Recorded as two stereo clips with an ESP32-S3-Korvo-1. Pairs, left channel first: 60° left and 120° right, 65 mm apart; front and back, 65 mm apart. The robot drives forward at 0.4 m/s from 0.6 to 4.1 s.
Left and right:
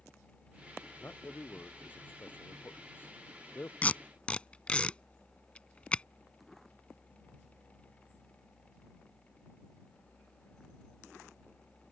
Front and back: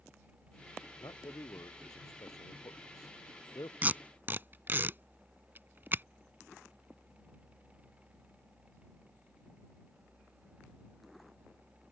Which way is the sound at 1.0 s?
5° left.